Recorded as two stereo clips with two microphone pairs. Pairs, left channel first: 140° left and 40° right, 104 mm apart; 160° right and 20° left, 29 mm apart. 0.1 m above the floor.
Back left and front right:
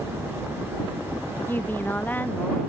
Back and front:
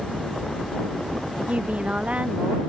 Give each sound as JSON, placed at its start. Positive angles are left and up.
{"t": 1.5, "sound": "a woman speaking", "azimuth_deg": 65}